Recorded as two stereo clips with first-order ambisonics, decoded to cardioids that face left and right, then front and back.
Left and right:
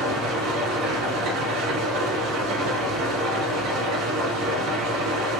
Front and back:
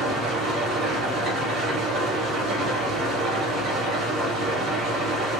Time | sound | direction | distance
0.0 | an engine running | 120° right | 1.1 m